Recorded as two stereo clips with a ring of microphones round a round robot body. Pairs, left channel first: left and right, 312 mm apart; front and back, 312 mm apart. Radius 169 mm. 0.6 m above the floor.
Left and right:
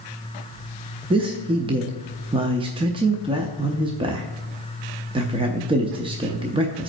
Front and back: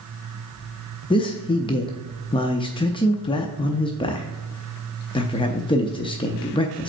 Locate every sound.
1.1 s a man speaking: 45° right, 0.5 m